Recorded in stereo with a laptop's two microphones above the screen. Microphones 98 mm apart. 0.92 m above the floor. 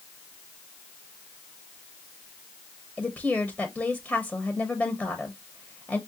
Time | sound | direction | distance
3.0 | a woman speaking | 10° left (ahead or behind) | 0.9 m